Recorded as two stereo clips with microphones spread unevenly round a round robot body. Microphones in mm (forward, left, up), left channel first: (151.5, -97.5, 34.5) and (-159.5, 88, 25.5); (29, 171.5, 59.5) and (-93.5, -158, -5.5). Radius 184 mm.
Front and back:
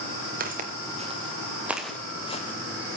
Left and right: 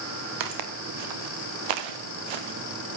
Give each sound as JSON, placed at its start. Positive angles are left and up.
{"t": 0.4, "sound": "footsteps", "azimuth_deg": -145, "distance_m": 3.5}